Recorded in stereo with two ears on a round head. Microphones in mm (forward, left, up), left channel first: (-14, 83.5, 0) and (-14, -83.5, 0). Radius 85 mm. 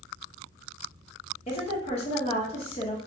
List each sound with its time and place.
1.5 s a woman speaking: 35° left (ahead or behind), 0.9 m